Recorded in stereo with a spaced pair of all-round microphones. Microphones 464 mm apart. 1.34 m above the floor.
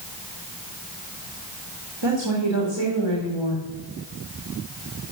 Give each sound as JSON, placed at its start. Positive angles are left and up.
{"t": 2.0, "sound": "a woman speaking", "side_deg": -65, "distance_m": 2.5}